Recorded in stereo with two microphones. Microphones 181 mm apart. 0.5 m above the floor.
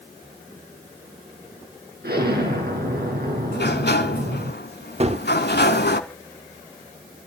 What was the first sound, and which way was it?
An explosion, 65° right (ahead or behind).